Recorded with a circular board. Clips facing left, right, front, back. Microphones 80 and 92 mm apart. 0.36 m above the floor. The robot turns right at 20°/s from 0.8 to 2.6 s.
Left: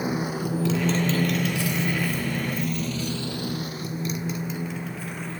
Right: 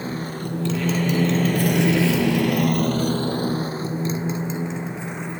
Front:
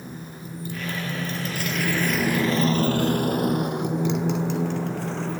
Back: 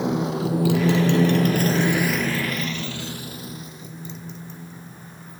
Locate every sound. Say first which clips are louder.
0.0 s a motorcycle: left 2 dB, back 15 dB; 170° left; by 5.4 s 15° right